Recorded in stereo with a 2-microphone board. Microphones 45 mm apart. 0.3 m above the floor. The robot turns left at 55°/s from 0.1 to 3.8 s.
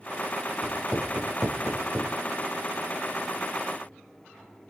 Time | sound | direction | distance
0.6 | writing | 60° left (ahead or behind) | 4.5 m